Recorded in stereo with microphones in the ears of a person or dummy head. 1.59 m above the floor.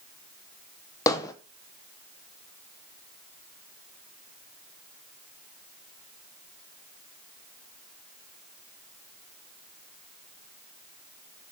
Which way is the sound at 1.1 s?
15° left (ahead or behind).